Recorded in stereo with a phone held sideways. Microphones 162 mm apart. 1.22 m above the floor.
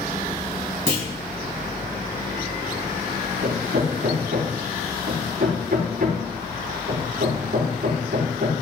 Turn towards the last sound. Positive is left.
turn(degrees=-75)  # may be behind; listen again after turning